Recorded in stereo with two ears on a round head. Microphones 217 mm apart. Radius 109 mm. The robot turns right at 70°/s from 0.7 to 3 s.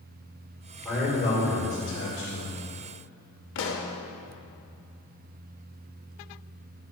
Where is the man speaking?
5° left, 2.5 m; by 2.6 s 125° left, 2.5 m.